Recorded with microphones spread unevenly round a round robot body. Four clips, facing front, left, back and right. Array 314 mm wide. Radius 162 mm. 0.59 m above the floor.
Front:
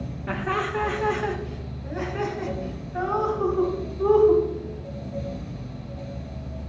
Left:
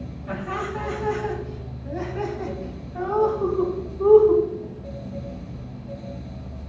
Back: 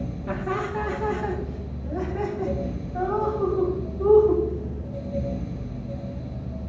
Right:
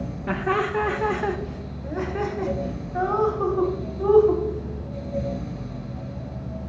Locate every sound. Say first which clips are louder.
0.3 s laughter: right 5 dB, front 2 dB; 95° right, 1.5 m; by 4.4 s 65° right, 5 m